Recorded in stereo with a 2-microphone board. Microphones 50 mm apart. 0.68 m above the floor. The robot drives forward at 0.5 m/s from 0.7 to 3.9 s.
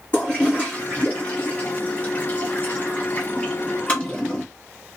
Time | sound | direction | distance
0.1 | a toilet flushing | 25° left (ahead or behind) | 1.6 m